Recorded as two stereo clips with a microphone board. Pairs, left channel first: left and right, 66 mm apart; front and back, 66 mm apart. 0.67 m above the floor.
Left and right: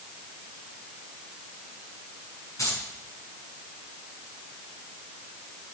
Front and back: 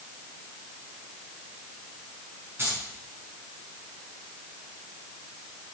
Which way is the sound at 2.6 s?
125° left.